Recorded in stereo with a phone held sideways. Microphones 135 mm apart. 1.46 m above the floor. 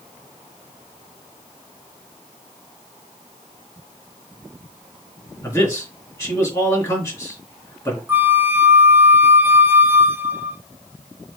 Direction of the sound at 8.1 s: 15° right (ahead or behind).